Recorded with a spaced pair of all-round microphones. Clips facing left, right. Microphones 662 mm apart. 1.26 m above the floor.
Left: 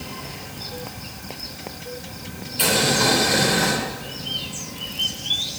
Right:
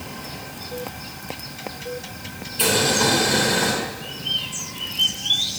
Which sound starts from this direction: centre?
Boiling, at 2.6 s.